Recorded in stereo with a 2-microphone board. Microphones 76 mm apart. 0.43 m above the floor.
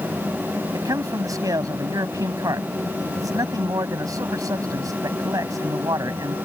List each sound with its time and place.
0.7 s a man speaking: 55° right (ahead or behind)